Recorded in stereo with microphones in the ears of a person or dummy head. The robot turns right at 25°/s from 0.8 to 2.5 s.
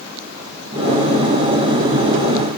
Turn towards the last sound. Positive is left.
No sound to turn to.